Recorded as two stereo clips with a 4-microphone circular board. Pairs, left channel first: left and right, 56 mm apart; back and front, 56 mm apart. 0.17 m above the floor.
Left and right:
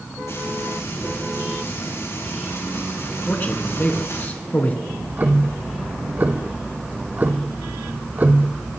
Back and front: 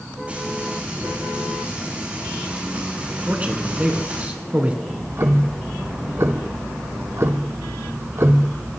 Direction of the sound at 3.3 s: 50° left.